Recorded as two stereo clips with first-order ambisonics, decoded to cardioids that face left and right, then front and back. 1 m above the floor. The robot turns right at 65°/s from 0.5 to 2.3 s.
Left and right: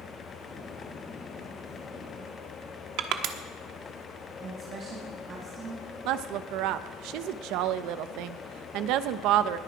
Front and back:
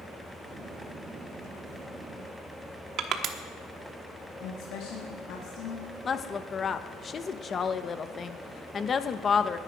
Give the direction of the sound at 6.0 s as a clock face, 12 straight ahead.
2 o'clock.